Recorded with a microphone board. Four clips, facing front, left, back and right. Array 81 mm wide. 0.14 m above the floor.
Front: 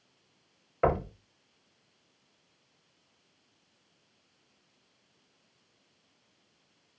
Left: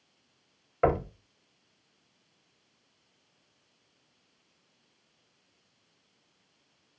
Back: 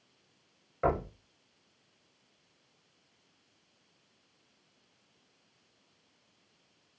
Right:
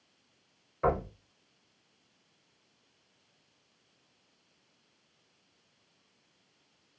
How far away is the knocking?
About 1.7 m.